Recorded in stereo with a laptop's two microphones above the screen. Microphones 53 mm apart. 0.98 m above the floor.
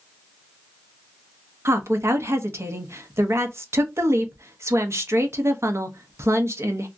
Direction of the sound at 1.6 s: 60° right (ahead or behind).